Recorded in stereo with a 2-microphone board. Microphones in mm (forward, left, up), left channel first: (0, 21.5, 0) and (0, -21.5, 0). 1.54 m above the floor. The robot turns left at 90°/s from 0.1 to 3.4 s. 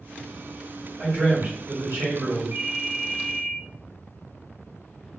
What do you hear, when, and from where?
1.0 s a man speaking: 15° right, 1.8 m; by 2.4 s 145° right, 1.8 m
2.5 s a ringtone: 75° right, 0.8 m; by 3.6 s 155° right, 0.8 m